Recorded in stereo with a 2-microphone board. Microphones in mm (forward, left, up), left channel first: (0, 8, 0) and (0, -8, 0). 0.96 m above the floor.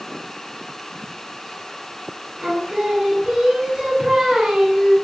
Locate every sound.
2.4 s singing: 80° right, 9 m